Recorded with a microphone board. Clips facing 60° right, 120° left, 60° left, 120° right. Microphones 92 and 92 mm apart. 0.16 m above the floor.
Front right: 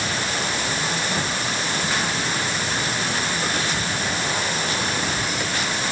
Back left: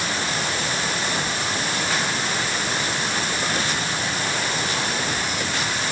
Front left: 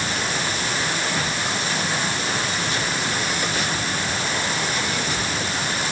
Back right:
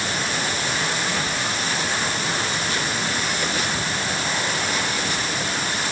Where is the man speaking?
No man speaking in this recording.